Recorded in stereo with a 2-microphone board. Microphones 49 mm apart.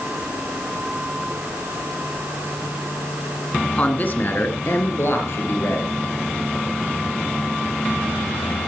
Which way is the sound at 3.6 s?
25° left (ahead or behind).